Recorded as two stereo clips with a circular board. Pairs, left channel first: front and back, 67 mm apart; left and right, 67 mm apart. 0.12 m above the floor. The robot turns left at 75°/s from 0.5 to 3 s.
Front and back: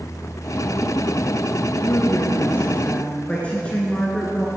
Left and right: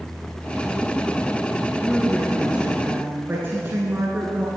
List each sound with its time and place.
1.9 s a woman speaking: 25° left, 1.3 m; by 4.5 s 60° right, 1.3 m